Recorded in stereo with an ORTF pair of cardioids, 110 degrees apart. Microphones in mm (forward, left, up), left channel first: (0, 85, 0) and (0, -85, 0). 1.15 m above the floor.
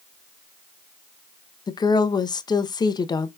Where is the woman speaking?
25° left, 0.7 m.